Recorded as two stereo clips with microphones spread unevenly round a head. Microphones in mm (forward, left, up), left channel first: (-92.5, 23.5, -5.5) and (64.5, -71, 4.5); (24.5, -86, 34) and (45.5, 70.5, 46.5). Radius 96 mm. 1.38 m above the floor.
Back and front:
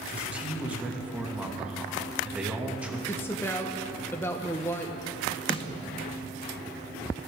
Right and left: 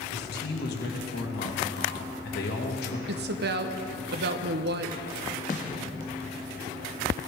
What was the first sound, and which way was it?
A man speaking, 115° right.